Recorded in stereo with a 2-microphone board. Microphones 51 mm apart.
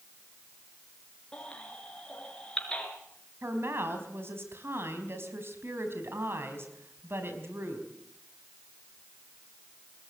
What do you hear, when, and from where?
1.3 s a baby crying: 15° left (ahead or behind), 5 m
3.4 s a woman speaking: 50° right (ahead or behind), 4.5 m